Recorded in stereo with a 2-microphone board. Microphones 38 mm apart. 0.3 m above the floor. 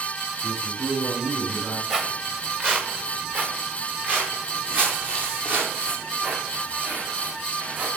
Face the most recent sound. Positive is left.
turn(degrees=-50)  # may be behind; listen again after turning